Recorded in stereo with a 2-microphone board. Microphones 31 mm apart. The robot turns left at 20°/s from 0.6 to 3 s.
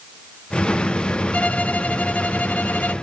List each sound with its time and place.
1.3 s a violin: 125° left, 0.5 m; by 2.9 s 95° left, 0.5 m